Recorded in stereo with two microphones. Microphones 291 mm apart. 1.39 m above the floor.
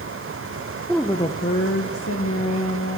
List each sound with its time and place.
0.9 s a woman speaking: 5° right (ahead or behind), 0.5 m; by 3.0 s 70° left (ahead or behind), 1.6 m